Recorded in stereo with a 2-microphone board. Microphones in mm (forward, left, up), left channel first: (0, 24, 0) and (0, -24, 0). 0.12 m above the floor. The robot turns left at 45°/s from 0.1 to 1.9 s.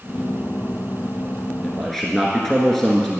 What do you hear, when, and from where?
1.6 s a man speaking: 15° left (ahead or behind), 1.5 m; by 3.2 s 5° left (ahead or behind), 1.5 m